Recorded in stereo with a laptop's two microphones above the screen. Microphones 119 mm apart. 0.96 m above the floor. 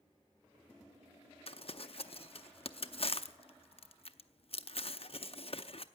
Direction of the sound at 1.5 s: 55° left (ahead or behind).